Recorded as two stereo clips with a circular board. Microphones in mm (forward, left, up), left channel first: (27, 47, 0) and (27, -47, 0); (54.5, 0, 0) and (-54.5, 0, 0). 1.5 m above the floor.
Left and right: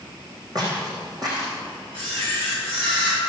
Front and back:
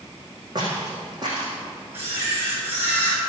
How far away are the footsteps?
About 5.5 m.